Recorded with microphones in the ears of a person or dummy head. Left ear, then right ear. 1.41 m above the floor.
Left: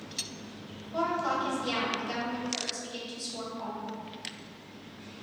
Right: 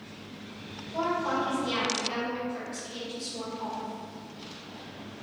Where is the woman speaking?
70° left (ahead or behind), 1.4 m.